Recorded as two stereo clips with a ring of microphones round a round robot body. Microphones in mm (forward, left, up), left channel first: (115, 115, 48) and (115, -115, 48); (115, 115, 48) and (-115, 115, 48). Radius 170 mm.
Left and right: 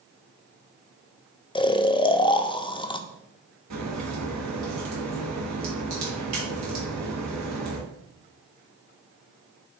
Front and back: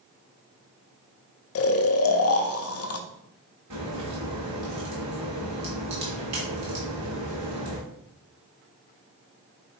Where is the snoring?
20° left, 0.5 m.